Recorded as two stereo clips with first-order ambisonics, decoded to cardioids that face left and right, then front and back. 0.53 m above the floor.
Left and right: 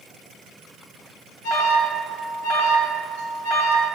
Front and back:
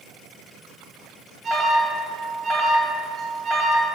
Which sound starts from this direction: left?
An alarm, at 1.4 s.